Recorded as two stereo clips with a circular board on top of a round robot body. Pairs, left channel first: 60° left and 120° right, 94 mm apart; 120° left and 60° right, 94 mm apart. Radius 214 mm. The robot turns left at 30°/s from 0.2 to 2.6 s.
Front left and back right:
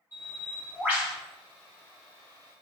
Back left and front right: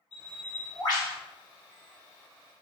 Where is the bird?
Straight behind, 1.9 m; by 1.1 s 155° left, 1.9 m.